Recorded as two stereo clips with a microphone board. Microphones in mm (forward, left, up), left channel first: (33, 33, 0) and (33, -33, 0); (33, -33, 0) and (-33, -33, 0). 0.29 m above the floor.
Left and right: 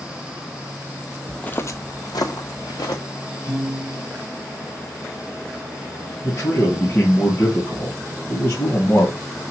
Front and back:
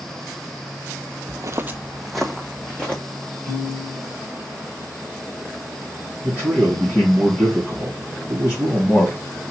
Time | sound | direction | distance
1.3 | footsteps | 175° left | 0.5 m
3.5 | a piano | 65° left | 4 m
6.2 | a man speaking | 45° left | 2.5 m